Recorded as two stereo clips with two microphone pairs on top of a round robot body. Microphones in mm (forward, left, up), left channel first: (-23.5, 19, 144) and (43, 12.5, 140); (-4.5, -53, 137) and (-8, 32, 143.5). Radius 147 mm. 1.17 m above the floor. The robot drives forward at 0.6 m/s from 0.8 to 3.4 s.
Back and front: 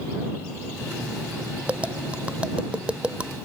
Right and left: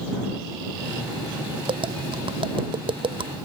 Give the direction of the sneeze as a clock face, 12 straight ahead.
I don't hear a sneeze.